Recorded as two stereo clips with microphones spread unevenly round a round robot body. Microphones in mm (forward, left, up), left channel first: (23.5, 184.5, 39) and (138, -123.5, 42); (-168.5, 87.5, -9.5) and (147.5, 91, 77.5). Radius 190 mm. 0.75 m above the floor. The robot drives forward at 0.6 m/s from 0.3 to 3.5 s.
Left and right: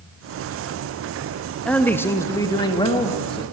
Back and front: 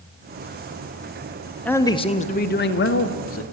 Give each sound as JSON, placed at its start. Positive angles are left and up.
{"t": 1.6, "sound": "a man speaking", "azimuth_deg": -170, "distance_m": 1.0}